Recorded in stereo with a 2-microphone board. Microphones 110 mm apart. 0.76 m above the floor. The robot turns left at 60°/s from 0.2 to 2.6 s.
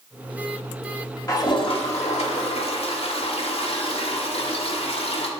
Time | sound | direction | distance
1.3 | a toilet flushing | 145° left | 1.0 m